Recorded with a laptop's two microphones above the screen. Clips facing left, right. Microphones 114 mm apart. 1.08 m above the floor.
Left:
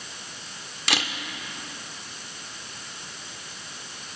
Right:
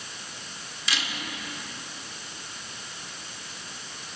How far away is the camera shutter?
About 1.3 m.